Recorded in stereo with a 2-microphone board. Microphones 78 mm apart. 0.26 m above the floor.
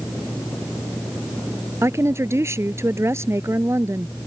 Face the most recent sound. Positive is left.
turn(degrees=-35)  # may be behind; listen again after turning